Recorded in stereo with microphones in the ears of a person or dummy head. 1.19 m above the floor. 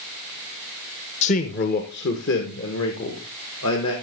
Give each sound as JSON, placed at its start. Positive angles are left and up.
{"t": 1.2, "sound": "a man speaking", "side_deg": 35, "distance_m": 1.0}